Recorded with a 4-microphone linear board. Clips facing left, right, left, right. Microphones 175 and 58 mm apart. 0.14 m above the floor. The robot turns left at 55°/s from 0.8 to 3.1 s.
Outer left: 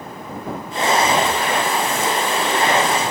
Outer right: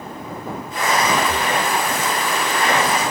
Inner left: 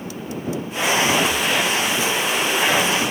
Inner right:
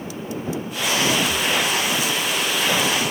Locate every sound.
1.3 s breathing: 20° right (ahead or behind); by 1.6 s 35° right (ahead or behind)